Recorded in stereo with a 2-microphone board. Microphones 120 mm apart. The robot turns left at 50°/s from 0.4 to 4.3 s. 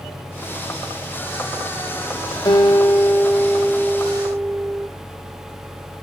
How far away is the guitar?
About 1.9 m.